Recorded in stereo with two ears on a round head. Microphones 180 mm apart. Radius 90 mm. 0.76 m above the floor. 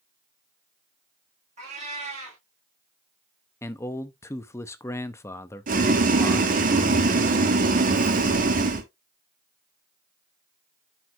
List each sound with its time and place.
1.6 s a cat meowing: 35° right (ahead or behind), 5 m
3.6 s a man speaking: 15° left (ahead or behind), 0.6 m
5.7 s boiling: 45° right (ahead or behind), 1.4 m